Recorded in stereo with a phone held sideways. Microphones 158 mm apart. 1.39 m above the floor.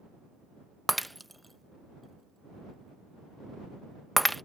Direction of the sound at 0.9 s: Centre (ahead or behind).